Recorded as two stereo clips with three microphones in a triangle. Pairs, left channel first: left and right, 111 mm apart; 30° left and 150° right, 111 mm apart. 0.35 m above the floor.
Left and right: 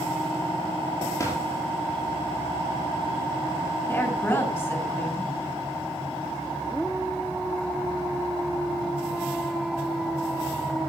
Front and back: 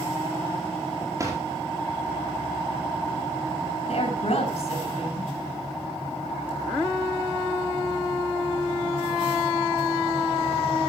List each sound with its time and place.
1.2 s a drawer: 150° left, 5 m
3.9 s a woman speaking: 25° left, 5 m